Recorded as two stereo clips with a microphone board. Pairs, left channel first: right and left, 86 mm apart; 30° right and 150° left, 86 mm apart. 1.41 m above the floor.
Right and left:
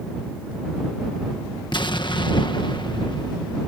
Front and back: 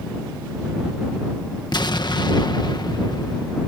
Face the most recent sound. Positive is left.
turn(degrees=-60)